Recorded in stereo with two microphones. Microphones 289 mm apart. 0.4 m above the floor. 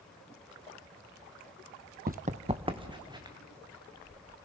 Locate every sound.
2.1 s running footsteps: 35° right (ahead or behind), 0.6 m; by 3.4 s 15° right (ahead or behind), 2 m